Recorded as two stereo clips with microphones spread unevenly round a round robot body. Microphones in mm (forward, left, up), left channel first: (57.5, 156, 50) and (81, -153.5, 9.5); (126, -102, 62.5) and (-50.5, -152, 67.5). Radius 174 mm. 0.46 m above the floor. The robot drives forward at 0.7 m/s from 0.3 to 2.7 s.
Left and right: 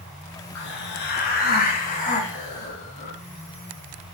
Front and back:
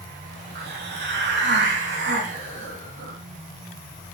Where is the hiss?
155° left, 1.7 m; by 3.2 s 165° left, 3 m.